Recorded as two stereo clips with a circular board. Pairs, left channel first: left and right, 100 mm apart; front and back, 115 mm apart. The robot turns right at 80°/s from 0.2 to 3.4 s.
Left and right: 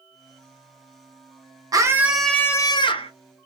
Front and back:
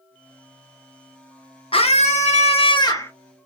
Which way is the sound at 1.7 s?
40° right.